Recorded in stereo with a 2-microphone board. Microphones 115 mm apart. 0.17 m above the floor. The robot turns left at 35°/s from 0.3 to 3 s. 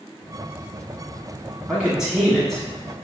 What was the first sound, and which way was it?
A man speaking, 10° right (ahead or behind).